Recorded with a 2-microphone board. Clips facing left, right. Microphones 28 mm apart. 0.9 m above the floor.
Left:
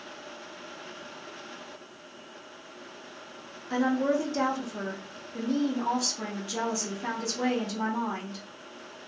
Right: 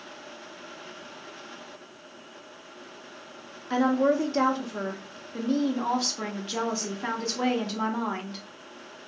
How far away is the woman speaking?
About 0.7 m.